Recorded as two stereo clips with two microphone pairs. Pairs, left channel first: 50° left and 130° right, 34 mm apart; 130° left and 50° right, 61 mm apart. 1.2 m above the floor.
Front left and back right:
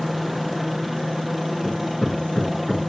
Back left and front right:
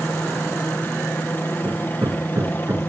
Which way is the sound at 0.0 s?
150° left.